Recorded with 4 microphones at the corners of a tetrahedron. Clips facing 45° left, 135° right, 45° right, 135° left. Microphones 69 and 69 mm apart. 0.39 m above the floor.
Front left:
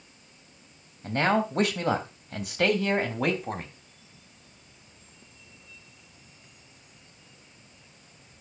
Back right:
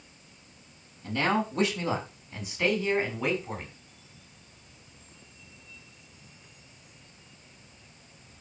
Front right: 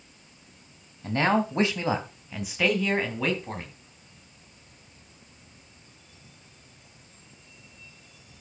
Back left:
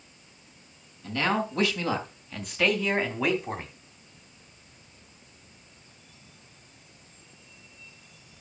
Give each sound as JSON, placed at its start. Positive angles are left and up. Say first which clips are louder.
{"t": 1.0, "sound": "a man speaking", "louder": "front left 3 dB, front right 3 dB", "azimuth_deg": 5, "distance_m": 3.0}